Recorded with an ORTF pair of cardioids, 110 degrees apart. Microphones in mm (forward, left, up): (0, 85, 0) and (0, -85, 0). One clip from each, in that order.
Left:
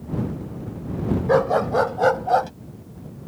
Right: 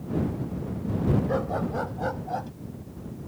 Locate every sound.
1.3 s a dog barking: 60° left; by 2.5 s 70° left